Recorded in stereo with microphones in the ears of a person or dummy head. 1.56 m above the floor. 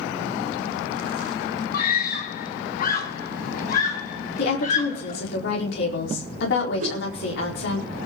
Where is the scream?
55° left (ahead or behind), 1.7 m; by 5.2 s 45° left (ahead or behind), 3.5 m.